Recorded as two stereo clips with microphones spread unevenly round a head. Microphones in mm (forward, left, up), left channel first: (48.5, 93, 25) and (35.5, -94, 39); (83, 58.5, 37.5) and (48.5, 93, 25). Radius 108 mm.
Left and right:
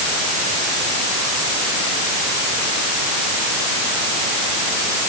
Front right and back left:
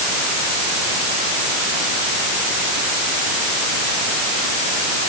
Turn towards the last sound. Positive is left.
No sound to turn to.